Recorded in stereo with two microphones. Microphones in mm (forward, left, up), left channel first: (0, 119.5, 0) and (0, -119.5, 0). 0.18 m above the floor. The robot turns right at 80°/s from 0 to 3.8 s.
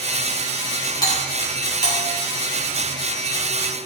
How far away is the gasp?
No gasp in this recording.